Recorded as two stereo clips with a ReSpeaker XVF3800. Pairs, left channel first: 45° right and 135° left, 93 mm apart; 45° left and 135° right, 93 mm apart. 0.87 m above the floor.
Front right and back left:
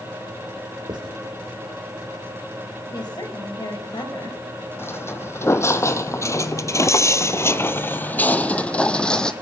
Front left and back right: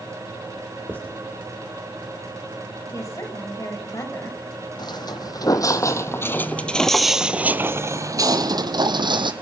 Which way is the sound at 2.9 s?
10° right.